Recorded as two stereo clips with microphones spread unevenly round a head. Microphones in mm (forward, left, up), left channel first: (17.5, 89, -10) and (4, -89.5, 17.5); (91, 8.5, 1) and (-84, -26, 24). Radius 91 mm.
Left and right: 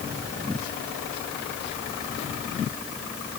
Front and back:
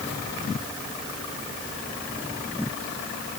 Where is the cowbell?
No cowbell in this recording.